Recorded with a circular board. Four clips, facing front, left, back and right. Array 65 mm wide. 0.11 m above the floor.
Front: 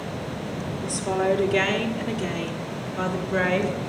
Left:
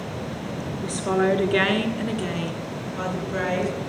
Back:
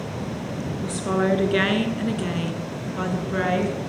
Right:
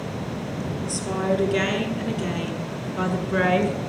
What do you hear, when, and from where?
0.8 s a woman speaking: 120° left, 2.0 m; by 3.8 s 80° right, 1.7 m